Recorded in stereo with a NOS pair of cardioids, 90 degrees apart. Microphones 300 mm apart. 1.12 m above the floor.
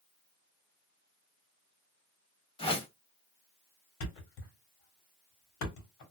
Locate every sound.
2.6 s a whoosh: 20° left, 1.1 m
4.0 s a thud: 70° left, 1.5 m